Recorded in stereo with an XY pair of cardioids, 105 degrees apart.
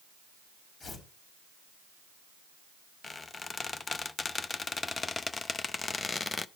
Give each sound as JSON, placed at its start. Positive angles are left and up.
{"t": 0.8, "sound": "tearing paper", "azimuth_deg": 45, "distance_m": 4.5}
{"t": 3.0, "sound": "a squeak", "azimuth_deg": 30, "distance_m": 0.5}